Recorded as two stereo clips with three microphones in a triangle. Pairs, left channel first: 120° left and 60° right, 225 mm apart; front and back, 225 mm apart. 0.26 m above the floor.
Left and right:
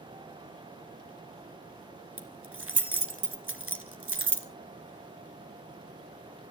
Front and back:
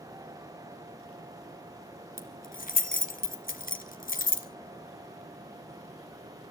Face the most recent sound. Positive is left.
turn(degrees=-50)